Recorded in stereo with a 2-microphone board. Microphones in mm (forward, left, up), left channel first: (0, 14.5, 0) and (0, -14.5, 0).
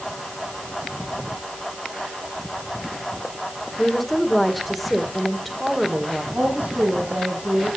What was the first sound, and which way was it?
A woman speaking, centre (ahead or behind).